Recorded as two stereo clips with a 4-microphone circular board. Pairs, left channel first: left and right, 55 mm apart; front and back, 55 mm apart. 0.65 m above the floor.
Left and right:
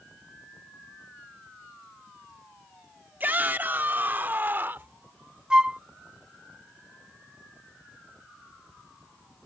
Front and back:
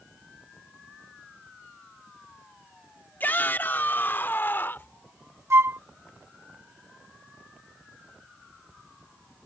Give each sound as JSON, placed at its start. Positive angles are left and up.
{"t": 3.2, "sound": "a shout", "azimuth_deg": -45}
{"t": 5.5, "sound": "a flute", "azimuth_deg": -160}